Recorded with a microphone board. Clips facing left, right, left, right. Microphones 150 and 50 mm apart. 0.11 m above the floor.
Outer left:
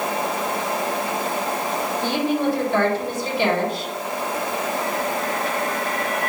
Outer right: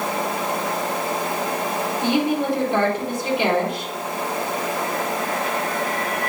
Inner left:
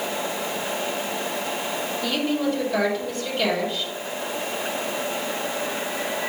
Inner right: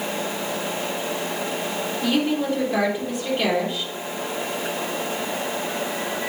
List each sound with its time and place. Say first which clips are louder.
2.0 s a woman speaking: outer right 1 dB, inner right 2 dB; 20° right (ahead or behind), 4 m